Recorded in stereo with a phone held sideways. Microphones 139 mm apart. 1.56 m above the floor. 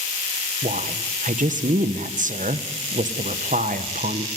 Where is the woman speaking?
70° right (ahead or behind), 1.3 m.